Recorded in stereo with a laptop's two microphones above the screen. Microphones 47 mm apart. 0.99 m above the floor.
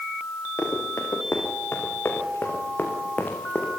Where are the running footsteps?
75° left (ahead or behind), 7.5 m; by 3.7 s 35° left (ahead or behind), 6 m.